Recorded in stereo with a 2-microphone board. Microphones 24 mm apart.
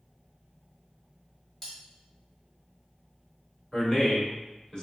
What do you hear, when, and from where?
1.6 s cutlery clinking: 15° left (ahead or behind), 1.3 m
3.7 s a man speaking: 40° left (ahead or behind), 1.4 m